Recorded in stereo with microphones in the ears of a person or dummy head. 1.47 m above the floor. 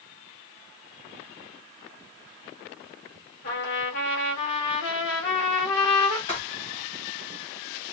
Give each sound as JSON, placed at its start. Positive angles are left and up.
{"t": 3.4, "sound": "a trumpet", "side_deg": 55, "distance_m": 1.5}
{"t": 6.3, "sound": "writing", "side_deg": 30, "distance_m": 0.7}